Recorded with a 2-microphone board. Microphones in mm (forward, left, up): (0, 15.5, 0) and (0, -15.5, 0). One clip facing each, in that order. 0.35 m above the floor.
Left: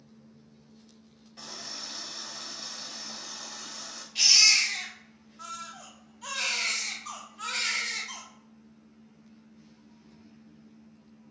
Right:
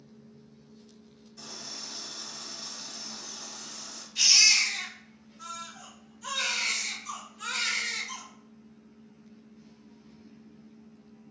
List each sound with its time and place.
1.4 s a running tap: 45° left (ahead or behind), 0.8 m
4.2 s a baby crying: 45° left (ahead or behind), 1.3 m